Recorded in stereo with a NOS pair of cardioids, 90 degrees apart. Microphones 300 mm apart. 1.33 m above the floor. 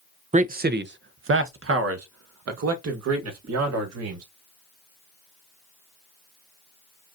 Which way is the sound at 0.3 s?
25° right.